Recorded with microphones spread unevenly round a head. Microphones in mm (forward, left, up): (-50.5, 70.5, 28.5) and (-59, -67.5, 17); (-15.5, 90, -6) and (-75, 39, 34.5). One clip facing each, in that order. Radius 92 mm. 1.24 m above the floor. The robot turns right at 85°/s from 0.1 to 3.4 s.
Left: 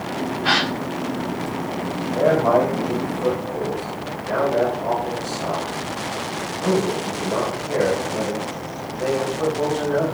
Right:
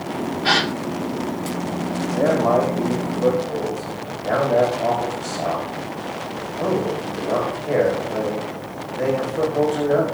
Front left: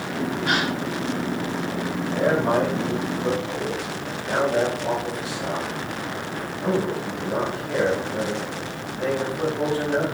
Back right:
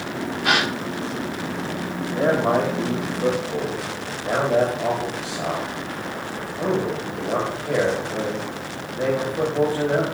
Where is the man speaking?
145° left, 5.5 m; by 10.0 s 110° right, 5.5 m.